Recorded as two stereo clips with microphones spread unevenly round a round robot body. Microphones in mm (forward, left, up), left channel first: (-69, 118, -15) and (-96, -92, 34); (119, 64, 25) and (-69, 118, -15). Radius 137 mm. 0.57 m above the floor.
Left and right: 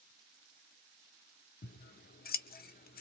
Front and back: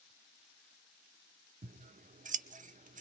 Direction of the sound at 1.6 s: 120° left.